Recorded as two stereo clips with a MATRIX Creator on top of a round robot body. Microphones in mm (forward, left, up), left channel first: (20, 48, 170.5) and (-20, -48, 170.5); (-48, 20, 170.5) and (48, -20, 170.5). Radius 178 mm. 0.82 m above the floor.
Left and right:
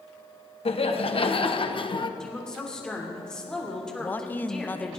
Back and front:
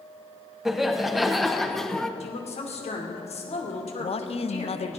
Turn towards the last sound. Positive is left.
turn(degrees=140)